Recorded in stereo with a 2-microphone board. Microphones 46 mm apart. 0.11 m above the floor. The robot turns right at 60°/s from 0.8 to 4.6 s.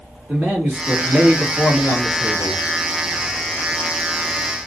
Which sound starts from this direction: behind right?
A man speaking, at 0.3 s.